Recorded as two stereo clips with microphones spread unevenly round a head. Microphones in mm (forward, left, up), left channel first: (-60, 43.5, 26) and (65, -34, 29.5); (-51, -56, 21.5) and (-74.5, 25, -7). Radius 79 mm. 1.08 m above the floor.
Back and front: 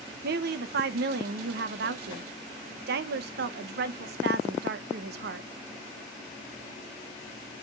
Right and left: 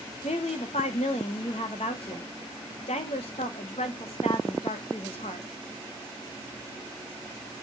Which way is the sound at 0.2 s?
20° right.